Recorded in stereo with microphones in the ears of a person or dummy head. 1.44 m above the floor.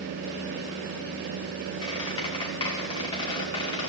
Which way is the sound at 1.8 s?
35° left (ahead or behind).